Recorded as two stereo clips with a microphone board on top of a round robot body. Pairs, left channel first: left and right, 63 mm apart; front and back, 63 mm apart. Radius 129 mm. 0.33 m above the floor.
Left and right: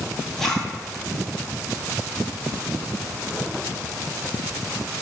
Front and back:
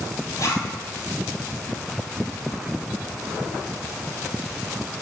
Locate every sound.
0.4 s a zipper: 10° left, 2 m